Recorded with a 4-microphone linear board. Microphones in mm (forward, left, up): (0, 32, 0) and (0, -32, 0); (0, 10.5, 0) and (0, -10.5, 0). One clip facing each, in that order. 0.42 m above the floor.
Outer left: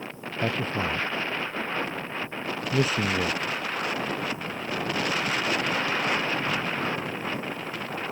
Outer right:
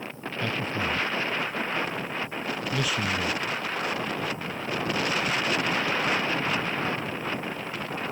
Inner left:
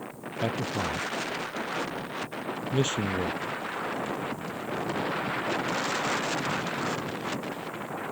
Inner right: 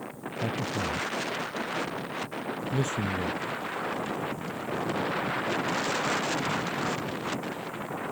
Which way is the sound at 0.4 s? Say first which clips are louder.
Outer left 2 dB, inner left 1 dB; 35° left (ahead or behind).